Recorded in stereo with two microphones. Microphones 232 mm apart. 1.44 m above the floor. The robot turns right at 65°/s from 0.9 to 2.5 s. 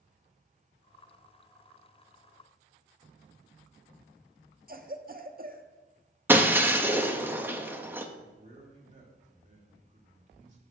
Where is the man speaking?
30° right (ahead or behind), 3 m.